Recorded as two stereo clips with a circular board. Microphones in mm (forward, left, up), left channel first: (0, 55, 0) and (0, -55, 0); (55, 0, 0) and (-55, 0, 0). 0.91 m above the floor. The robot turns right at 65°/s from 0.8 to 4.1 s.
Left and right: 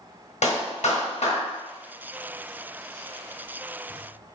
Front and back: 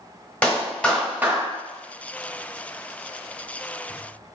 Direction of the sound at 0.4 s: 80° left.